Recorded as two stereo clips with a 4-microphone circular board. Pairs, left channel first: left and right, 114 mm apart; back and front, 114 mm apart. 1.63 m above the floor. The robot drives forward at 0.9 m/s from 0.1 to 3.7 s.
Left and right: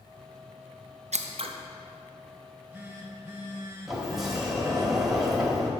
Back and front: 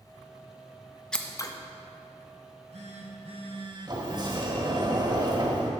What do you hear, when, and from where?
1.1 s scissors: 95° right, 0.6 m; by 1.5 s 125° right, 0.7 m
2.4 s a phone buzzing: 10° right, 1.9 m; by 4.9 s 30° right, 0.9 m
3.9 s a sliding door: 5° right, 1.3 m